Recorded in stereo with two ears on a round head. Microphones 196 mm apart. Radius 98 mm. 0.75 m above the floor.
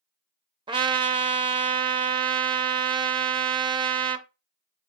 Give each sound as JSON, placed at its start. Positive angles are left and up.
{"t": 0.7, "sound": "a trumpet", "side_deg": -20, "distance_m": 0.5}